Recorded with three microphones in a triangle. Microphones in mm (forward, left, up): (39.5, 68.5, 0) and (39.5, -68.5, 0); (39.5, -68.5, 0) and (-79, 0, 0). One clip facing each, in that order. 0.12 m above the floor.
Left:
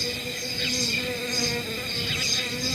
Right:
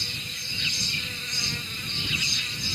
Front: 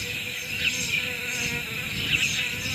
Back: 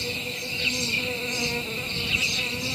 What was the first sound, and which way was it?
An insect, 100° left.